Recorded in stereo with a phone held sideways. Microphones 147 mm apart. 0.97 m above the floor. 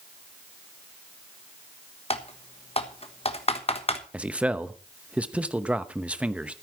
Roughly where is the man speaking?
Centre.